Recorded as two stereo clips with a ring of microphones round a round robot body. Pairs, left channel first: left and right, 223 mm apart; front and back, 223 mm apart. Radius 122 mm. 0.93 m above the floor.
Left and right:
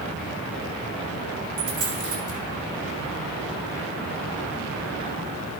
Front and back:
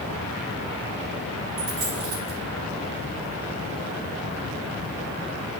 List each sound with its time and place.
1.6 s a dropped coin: 120° right, 5.5 m